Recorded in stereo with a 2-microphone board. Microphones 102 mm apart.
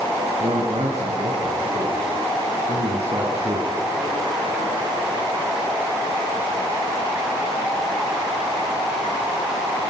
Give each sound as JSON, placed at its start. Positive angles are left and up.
{"t": 0.4, "sound": "a man speaking", "side_deg": -75, "distance_m": 6.5}